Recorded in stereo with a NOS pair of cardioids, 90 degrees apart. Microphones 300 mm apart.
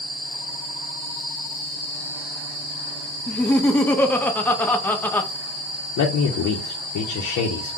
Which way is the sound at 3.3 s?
5° left.